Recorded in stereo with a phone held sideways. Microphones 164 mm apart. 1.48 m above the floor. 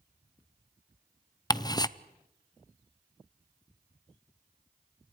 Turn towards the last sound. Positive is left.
turn(degrees=25)  # may be behind; listen again after turning